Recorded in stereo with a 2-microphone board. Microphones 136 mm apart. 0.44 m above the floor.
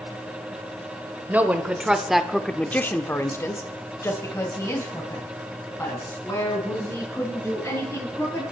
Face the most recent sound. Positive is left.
turn(degrees=20)  # may be behind; listen again after turning